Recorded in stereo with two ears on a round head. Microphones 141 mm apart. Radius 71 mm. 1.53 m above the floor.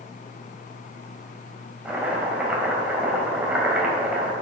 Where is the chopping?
10° right (ahead or behind), 3 m.